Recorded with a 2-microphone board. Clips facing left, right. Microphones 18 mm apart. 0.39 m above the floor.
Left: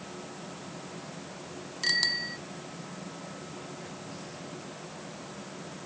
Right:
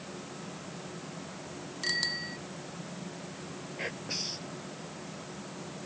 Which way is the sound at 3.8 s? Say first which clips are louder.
Right 6 dB; 75° right (ahead or behind).